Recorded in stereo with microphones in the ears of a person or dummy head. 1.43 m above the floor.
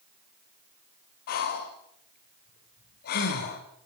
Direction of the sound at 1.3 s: 50° left (ahead or behind).